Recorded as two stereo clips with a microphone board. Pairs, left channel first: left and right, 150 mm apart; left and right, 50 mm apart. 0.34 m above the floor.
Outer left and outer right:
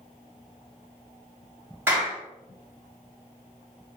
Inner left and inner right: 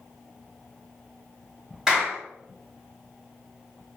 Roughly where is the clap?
Centre.